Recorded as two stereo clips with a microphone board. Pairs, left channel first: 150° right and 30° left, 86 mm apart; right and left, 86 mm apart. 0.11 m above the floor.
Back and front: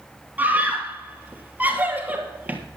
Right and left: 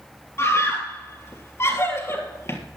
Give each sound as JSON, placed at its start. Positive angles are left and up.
{"t": 0.4, "sound": "a scream", "azimuth_deg": -35, "distance_m": 3.0}